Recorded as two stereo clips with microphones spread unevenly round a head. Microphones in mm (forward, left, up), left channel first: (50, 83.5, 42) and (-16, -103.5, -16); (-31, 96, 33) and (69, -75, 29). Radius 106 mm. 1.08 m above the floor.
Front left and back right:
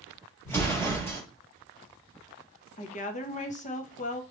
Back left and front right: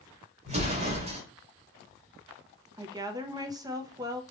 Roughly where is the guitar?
No guitar in this recording.